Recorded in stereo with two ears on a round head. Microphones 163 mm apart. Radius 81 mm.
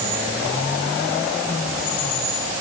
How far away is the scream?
No scream in this recording.